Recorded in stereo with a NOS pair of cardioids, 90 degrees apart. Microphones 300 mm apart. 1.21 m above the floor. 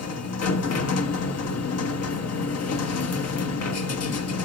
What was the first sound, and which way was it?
A machine running, 55° left.